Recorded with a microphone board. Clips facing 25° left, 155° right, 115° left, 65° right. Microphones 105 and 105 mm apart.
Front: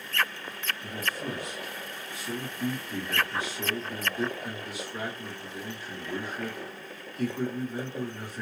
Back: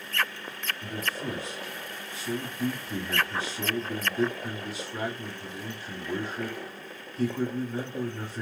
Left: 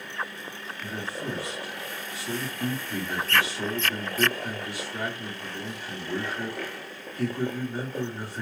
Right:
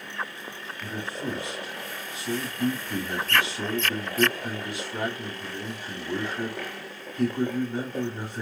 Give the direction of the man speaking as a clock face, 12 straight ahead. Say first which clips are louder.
Back 1 dB, right 1 dB; 4 o'clock.